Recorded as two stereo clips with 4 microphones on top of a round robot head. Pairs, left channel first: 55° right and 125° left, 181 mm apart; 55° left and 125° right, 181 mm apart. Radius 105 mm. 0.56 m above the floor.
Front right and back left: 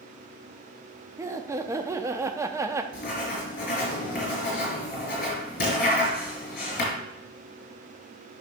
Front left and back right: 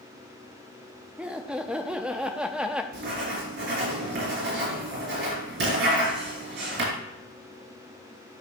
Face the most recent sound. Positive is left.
turn(degrees=-100)